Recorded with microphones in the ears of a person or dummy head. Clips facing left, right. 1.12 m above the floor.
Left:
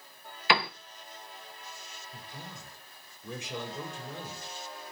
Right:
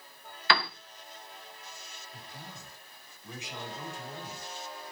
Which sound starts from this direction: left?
A man speaking, at 2.1 s.